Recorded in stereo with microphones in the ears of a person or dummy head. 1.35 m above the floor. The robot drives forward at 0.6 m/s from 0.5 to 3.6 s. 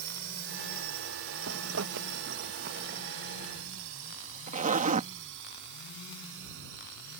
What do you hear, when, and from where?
0.0 s a drone: 60° right (ahead or behind)
1.5 s a zipper: 85° right; by 5.1 s 45° right (ahead or behind)